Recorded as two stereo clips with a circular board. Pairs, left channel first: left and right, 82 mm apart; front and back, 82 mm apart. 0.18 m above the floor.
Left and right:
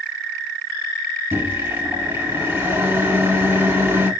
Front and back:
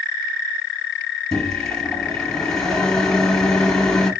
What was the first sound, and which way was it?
A microwave, 75° right.